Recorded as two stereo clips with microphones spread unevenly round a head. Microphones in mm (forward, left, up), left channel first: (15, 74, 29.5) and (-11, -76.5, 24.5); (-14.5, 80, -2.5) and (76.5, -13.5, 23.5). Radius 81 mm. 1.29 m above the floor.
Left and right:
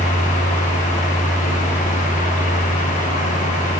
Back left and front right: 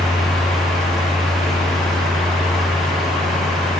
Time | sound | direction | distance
0.0 | a fan | 55° left | 1.7 m